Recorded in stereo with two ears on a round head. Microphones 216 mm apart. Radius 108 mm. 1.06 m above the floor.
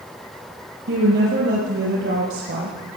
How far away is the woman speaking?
About 5 m.